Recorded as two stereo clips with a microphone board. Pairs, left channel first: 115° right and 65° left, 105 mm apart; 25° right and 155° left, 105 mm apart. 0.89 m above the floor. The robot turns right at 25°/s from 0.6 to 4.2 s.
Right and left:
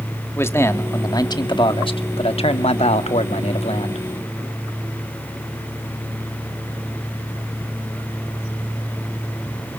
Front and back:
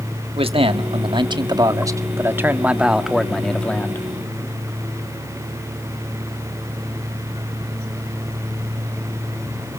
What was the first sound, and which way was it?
A man speaking, straight behind.